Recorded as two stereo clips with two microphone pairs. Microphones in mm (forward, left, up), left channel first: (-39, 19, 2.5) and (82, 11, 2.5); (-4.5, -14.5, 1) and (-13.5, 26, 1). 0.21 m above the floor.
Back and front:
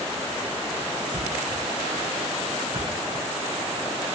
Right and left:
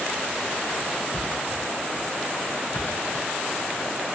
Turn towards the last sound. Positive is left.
turn(degrees=-45)